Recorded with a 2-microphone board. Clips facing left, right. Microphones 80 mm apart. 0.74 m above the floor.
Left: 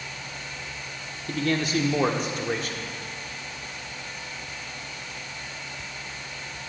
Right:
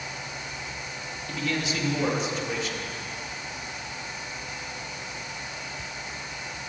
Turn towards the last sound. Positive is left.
turn(degrees=45)  # may be behind; listen again after turning